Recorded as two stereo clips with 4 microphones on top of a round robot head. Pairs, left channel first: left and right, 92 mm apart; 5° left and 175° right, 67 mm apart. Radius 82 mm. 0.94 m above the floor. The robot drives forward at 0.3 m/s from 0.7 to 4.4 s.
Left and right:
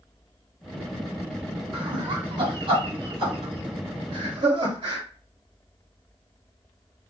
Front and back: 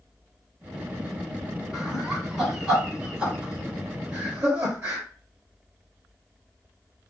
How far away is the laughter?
About 2.0 m.